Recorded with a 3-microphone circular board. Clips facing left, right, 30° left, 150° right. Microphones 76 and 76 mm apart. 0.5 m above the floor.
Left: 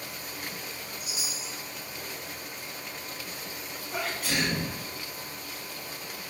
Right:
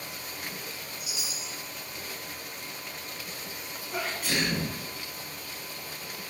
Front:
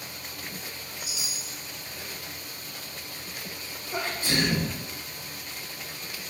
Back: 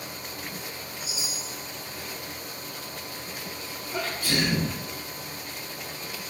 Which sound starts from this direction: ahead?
A sneeze, at 3.9 s.